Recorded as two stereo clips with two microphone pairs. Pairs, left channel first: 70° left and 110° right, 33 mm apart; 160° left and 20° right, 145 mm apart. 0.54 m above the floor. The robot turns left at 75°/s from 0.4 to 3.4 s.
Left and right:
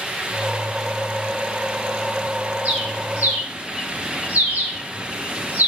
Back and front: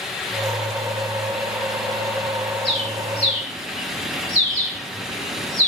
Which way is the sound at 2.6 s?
60° right.